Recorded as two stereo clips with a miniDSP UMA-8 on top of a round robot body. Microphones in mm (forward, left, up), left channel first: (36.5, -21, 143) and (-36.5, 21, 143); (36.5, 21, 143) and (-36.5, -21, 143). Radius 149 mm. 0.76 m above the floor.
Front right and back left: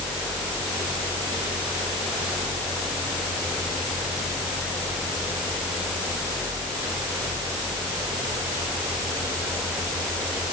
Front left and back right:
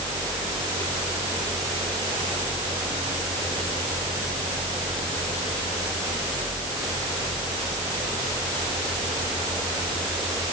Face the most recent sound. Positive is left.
No sound to turn to.